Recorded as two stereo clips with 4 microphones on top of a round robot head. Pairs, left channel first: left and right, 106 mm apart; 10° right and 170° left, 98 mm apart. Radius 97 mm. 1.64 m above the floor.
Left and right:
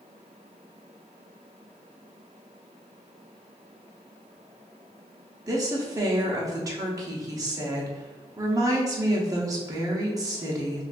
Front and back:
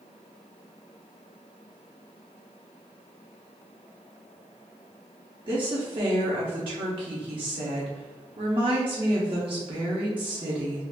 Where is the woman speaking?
145° right, 0.8 m.